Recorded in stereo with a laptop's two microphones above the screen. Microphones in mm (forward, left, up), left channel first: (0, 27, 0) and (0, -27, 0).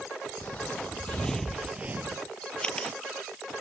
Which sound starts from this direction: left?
Footsteps, at 0.4 s.